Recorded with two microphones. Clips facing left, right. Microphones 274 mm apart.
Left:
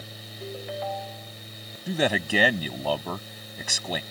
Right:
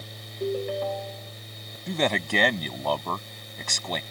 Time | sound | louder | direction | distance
0.4 | a ringtone | right 7 dB | 50° right (ahead or behind) | ?
1.9 | a man speaking | left 1 dB | 5° left (ahead or behind) | ?